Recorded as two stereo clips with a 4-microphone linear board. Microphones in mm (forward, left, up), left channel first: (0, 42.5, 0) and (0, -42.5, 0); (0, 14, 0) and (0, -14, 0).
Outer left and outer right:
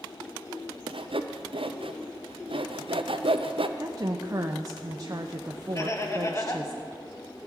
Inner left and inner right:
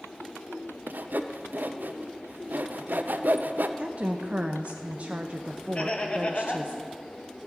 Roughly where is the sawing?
Right.